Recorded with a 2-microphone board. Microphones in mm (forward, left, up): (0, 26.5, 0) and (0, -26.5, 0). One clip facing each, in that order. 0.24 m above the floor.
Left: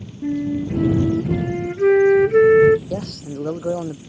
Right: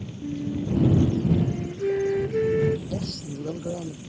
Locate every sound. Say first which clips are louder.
0.2 s a flute: left 7 dB; 75° left (ahead or behind)
2.9 s a man speaking: left 4 dB; 65° left (ahead or behind)